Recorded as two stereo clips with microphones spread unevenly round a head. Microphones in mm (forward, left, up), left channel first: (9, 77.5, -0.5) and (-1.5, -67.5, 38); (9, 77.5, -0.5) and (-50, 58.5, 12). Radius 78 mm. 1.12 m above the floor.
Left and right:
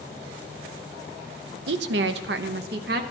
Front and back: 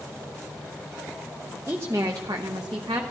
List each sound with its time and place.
1.7 s a woman speaking: 85° right, 0.8 m; by 3.0 s 120° right, 1.3 m